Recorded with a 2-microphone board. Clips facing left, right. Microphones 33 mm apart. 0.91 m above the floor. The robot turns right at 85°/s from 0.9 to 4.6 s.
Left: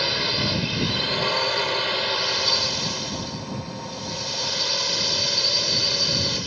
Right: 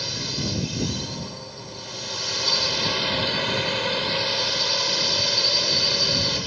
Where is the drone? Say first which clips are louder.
Left 6 dB; 35° left; by 6.5 s 10° right.